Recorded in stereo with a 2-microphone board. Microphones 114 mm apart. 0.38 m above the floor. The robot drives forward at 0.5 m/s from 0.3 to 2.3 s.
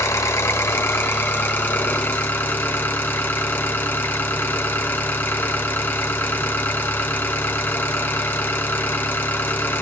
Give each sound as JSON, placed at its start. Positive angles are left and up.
{"t": 0.0, "sound": "an engine running", "side_deg": 25, "distance_m": 1.6}